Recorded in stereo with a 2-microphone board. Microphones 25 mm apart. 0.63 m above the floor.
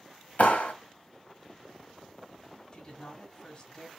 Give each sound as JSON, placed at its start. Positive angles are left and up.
{"t": 0.4, "sound": "a clap", "side_deg": 75, "distance_m": 1.2}
{"t": 2.7, "sound": "a woman speaking", "side_deg": 35, "distance_m": 1.4}